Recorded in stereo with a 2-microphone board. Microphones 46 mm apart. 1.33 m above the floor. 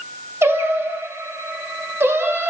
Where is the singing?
60° right (ahead or behind), 0.7 m.